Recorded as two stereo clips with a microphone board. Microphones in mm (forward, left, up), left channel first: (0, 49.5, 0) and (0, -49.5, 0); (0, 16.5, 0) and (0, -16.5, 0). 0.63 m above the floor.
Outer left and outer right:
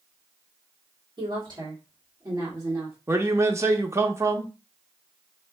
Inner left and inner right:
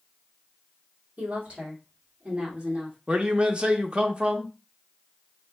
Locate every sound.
1.2 s a woman speaking: 50° right (ahead or behind), 1.9 m; by 3.0 s 30° right (ahead or behind), 2 m
3.1 s a man speaking: 30° right (ahead or behind), 0.7 m